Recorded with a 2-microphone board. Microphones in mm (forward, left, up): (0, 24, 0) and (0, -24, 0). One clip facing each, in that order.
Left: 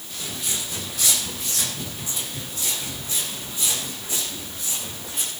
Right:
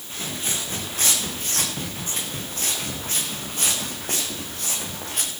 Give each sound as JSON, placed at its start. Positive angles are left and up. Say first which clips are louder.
{"t": 0.1, "sound": "footsteps", "louder": "right 2 dB", "side_deg": -35, "distance_m": 7.0}